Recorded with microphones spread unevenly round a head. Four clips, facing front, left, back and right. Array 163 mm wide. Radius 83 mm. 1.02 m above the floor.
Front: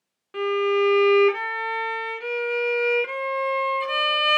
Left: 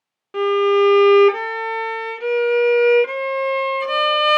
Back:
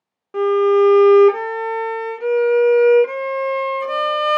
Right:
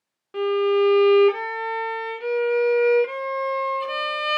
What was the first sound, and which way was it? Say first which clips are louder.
A violin: left 4 dB, back 8 dB; 150° left.